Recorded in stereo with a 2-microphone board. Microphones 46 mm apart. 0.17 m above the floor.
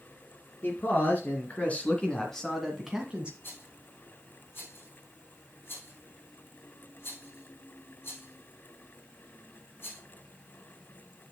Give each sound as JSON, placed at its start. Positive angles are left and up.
{"t": 0.6, "sound": "a man speaking", "side_deg": 45, "distance_m": 3.0}
{"t": 3.4, "sound": "a rattle", "side_deg": 50, "distance_m": 3.5}